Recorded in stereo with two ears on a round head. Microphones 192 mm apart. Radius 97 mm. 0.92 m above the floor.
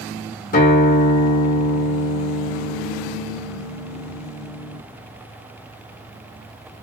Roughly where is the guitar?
Left.